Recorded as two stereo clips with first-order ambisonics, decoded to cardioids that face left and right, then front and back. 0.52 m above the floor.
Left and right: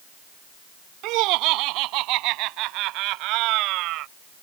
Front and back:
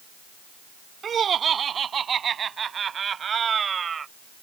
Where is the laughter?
115° right.